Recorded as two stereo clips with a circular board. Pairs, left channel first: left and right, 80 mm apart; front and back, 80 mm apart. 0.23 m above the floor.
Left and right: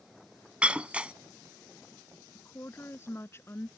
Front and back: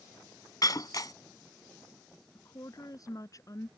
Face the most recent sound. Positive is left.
turn(degrees=35)